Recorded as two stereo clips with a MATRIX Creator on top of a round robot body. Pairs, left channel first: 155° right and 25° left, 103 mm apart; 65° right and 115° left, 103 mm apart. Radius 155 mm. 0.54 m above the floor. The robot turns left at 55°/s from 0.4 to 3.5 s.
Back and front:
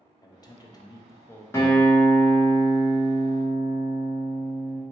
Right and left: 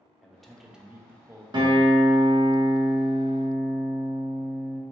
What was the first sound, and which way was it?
A man speaking, 150° right.